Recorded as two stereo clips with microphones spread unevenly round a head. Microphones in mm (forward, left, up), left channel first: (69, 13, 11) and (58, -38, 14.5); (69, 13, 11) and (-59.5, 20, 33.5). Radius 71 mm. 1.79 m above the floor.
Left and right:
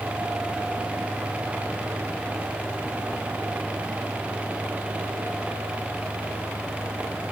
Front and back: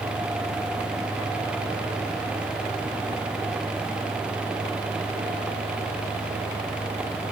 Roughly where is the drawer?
No drawer in this recording.